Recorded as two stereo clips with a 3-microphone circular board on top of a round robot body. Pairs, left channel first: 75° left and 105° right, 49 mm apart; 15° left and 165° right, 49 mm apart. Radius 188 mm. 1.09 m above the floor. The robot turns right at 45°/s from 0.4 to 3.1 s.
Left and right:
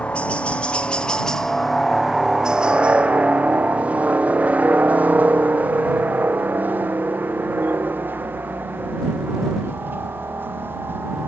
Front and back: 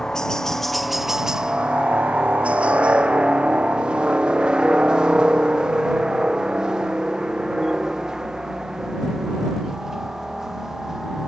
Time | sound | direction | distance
0.0 | a helicopter | 75° left | ?